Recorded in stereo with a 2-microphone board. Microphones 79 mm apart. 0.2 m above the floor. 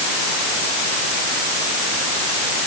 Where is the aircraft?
I don't hear an aircraft.